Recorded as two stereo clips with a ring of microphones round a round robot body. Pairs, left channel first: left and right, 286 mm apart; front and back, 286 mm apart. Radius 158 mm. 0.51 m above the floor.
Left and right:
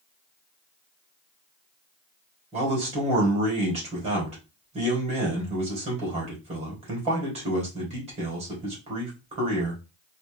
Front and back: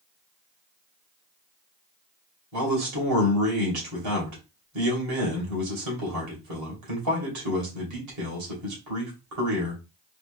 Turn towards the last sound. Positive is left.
turn(degrees=-160)